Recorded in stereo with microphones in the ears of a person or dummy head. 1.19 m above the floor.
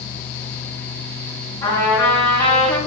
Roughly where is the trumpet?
Left.